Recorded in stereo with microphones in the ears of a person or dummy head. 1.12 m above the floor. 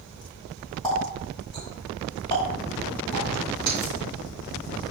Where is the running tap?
25° left (ahead or behind), 5 m.